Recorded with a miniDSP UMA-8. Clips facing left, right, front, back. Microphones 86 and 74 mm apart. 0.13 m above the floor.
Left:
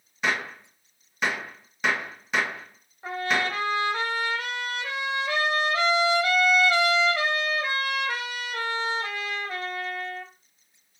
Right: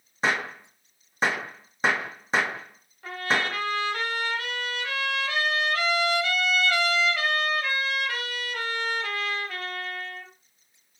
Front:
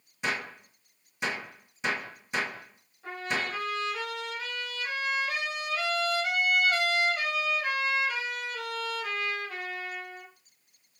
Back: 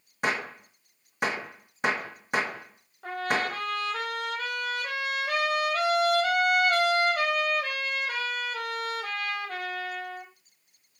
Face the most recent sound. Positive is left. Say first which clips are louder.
# left 1 dB, back 4 dB
turn(degrees=160)